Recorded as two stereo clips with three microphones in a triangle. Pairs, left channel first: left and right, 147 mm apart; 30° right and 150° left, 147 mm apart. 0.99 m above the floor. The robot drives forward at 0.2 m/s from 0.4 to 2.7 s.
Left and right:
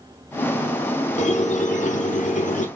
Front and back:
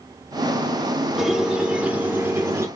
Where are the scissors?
No scissors in this recording.